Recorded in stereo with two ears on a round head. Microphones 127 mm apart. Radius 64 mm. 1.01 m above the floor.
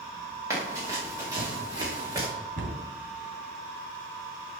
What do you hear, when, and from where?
0.5 s running footsteps: 20° right (ahead or behind), 5.5 m; by 2.3 s 25° right (ahead or behind), 3 m
2.6 s a cupboard door: 70° right (ahead or behind), 2.5 m